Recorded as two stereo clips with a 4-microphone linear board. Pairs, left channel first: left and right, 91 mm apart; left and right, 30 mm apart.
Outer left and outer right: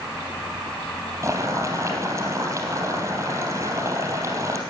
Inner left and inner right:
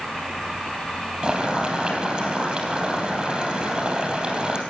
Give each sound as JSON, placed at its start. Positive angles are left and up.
{"t": 1.2, "sound": "boiling", "side_deg": -35, "distance_m": 3.5}